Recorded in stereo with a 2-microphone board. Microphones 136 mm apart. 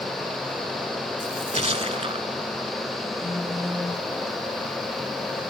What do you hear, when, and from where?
1.2 s a splash: 50° right (ahead or behind), 0.6 m
3.2 s a phone buzzing: 55° left (ahead or behind), 3 m